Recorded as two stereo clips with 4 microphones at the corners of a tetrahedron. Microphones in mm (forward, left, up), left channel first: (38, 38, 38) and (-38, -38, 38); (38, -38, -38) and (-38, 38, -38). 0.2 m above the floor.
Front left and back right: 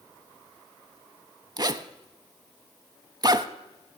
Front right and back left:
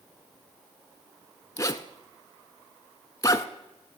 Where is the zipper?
95° right, 0.6 m.